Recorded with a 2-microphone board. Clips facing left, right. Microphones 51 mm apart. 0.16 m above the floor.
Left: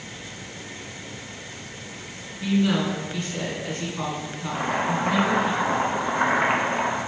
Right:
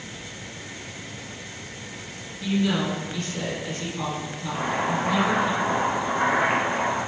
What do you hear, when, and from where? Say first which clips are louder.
2.4 s a woman speaking: left 2 dB; 25° left (ahead or behind), 1.9 m
4.5 s chopping: left 1 dB; 30° left (ahead or behind), 1.0 m